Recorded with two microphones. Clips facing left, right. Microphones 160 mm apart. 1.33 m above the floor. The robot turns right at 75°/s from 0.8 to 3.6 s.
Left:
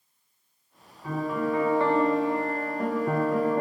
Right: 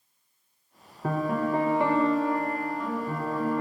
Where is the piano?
75° right, 0.7 m; by 3.6 s 115° left, 0.7 m.